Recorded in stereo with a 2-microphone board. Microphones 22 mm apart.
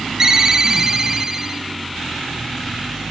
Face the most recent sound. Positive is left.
turn(degrees=-25)  # may be behind; listen again after turning